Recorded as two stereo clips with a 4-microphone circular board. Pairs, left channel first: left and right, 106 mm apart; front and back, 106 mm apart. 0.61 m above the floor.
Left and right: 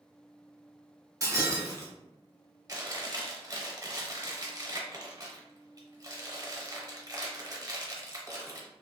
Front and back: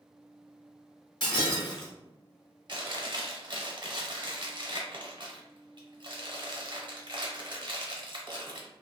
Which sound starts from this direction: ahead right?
Breaking glass, at 1.2 s.